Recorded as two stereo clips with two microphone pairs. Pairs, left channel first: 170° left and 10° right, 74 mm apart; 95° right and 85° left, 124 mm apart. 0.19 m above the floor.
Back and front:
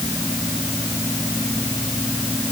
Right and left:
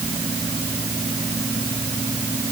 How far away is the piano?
I don't hear a piano.